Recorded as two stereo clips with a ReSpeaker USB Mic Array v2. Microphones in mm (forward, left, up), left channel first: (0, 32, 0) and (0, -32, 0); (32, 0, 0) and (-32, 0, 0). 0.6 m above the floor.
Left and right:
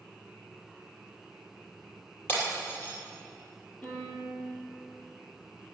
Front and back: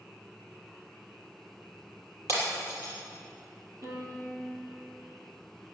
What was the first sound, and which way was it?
Breaking glass, 145° left.